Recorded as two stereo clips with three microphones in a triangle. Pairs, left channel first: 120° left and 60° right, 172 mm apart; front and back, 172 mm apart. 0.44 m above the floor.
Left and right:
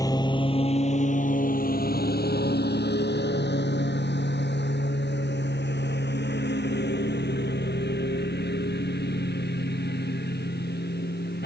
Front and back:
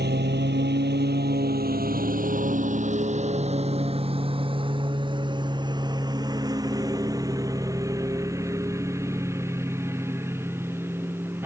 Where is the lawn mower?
170° right; by 11.5 s 100° left.